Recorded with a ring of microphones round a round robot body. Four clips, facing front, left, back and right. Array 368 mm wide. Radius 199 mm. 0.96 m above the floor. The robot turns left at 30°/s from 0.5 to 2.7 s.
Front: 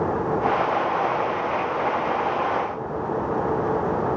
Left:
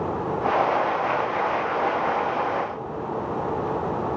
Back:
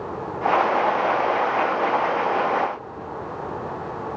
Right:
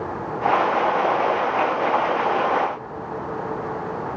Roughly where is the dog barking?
I don't hear a dog barking.